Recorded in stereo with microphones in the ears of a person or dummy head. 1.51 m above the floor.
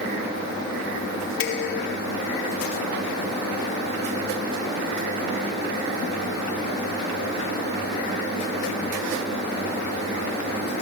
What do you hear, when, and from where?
1.4 s dishes clattering: 65° left (ahead or behind), 2.5 m